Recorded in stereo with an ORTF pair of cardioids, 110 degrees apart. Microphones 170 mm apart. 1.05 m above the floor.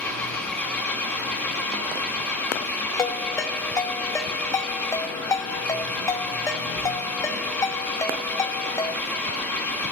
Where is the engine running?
5° left, 3 m.